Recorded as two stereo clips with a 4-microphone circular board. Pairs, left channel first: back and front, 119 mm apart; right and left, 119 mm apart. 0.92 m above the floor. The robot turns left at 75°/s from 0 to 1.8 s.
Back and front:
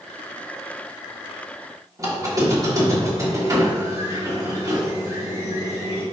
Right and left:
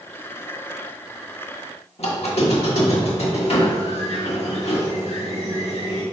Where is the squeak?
60° right, 1.4 m.